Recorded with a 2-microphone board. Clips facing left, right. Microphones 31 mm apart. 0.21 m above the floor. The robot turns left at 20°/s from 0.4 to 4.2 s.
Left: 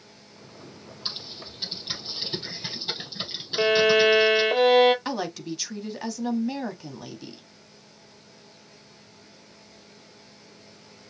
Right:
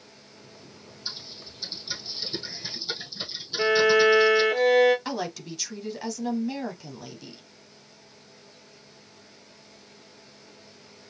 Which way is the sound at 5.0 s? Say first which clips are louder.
Left 2 dB; 10° left (ahead or behind).